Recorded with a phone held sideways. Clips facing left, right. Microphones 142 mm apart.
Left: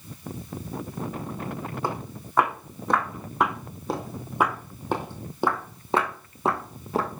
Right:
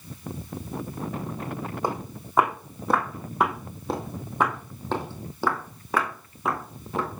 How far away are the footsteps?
About 3.5 m.